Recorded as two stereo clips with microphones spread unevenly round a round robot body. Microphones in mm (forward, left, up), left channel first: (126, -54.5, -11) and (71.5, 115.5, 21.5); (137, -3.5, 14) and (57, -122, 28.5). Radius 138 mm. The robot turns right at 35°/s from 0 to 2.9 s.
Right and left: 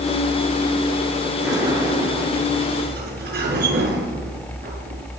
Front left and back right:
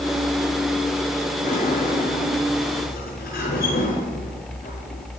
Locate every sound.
1.4 s a sliding door: 30° left, 5.5 m; by 5.0 s 80° left, 5.5 m